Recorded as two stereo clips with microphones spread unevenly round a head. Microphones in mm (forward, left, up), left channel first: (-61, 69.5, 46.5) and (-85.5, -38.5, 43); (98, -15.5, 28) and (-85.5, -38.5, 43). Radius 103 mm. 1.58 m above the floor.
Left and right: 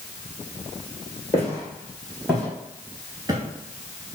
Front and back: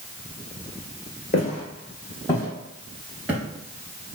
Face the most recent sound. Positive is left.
turn(degrees=-120)